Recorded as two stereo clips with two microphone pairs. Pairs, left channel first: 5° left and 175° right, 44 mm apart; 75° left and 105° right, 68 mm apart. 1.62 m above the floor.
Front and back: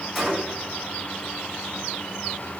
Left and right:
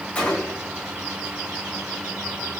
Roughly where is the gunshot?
Left.